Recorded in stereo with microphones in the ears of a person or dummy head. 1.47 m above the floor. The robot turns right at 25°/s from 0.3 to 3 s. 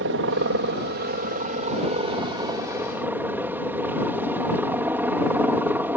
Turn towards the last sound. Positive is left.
turn(degrees=-10)